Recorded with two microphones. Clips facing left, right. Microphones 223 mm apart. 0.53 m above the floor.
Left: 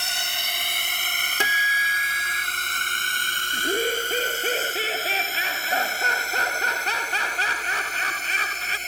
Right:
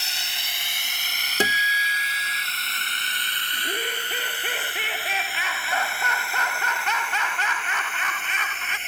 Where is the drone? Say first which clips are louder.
Left 5 dB; 60° left (ahead or behind); by 8.9 s 40° left (ahead or behind).